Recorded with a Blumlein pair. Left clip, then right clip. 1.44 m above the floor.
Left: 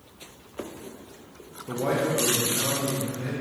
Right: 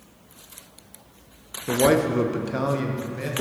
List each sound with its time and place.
1.7 s a man speaking: 65° right, 0.6 m; by 3.3 s 45° right, 1.4 m